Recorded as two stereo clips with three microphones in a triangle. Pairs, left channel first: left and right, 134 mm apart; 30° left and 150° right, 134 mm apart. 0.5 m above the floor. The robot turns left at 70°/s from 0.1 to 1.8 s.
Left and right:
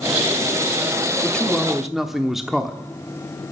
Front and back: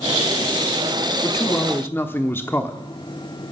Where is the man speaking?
35° left, 1.2 m; by 2.8 s 5° right, 1.2 m.